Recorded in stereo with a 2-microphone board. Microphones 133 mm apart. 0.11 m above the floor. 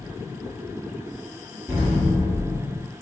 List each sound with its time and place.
1.7 s an explosion: 15° right (ahead or behind), 1.3 m